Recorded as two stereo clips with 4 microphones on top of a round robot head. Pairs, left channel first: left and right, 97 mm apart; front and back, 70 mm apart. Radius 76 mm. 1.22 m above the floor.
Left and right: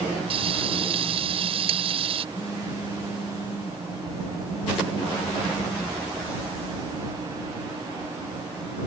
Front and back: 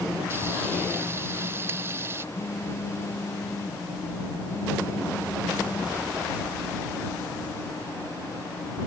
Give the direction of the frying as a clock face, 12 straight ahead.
4 o'clock.